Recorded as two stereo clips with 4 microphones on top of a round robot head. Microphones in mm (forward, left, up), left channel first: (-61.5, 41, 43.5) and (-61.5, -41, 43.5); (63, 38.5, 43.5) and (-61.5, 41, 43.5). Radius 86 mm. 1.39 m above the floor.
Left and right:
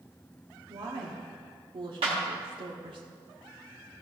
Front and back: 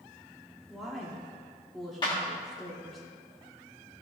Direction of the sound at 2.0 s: 65° right.